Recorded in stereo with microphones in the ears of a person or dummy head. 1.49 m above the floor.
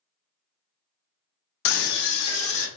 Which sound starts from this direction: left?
A scream, at 1.6 s.